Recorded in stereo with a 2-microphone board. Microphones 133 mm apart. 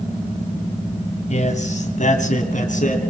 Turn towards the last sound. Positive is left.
turn(degrees=65)  # may be behind; listen again after turning